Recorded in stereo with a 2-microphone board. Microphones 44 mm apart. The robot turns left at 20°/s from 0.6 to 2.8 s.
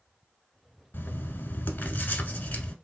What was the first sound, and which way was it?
Writing, 80° left.